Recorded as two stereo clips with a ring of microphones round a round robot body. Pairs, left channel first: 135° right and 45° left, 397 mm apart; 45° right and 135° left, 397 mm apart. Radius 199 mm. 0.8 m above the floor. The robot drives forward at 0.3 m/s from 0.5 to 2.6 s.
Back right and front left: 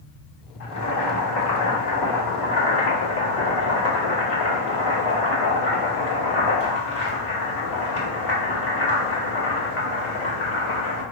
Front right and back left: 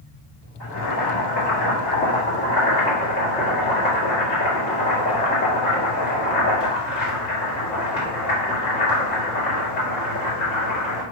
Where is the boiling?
90° right, 1.8 m; by 11.0 s 110° right, 1.9 m.